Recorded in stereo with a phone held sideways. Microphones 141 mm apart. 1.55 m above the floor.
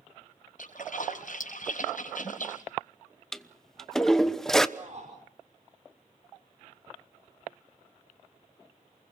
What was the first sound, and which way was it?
A splash, 70° left (ahead or behind).